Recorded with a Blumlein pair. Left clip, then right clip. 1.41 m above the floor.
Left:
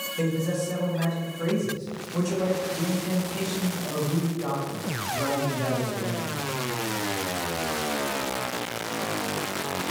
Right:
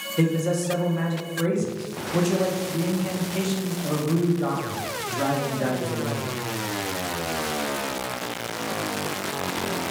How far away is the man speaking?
About 1.0 m.